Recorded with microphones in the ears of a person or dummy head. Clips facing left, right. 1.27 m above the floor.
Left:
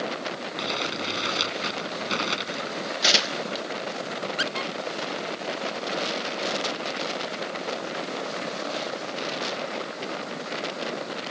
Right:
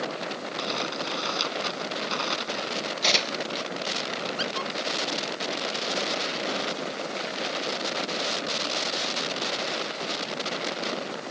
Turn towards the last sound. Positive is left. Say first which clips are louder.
# left 1 dB
turn(degrees=25)  # may be behind; listen again after turning